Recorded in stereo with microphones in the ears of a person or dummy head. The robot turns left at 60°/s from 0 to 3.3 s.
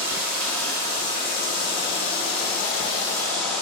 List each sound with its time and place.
0.0 s running water: 155° right, 6.5 m; by 3.6 s 5° left, 6.5 m